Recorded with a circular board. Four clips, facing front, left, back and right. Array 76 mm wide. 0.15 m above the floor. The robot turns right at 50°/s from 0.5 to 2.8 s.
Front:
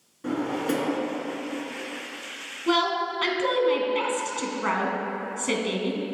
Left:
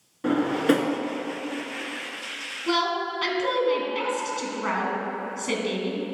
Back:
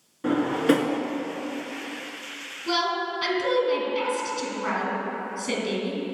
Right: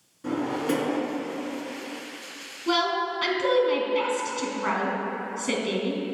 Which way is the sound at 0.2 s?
125° left.